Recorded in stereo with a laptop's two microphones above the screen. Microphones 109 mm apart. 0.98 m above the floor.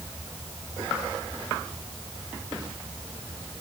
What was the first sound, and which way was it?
Only background noise.